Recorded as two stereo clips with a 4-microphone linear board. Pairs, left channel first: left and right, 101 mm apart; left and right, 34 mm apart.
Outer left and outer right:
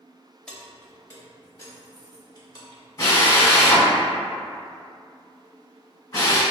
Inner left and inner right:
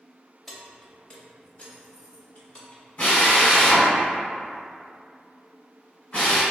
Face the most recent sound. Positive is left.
turn(degrees=30)  # may be behind; listen again after turning